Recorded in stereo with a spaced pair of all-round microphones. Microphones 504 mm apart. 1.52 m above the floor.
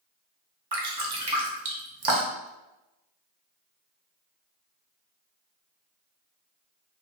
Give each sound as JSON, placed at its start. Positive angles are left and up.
{"t": 0.7, "sound": "dripping", "side_deg": -50, "distance_m": 0.5}